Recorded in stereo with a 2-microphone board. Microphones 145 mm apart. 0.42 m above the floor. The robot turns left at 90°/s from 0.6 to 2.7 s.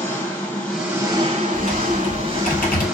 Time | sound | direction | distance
0.0 | an engine running | 15° left | 1.0 m
1.5 | typing on a keyboard | 165° right | 1.7 m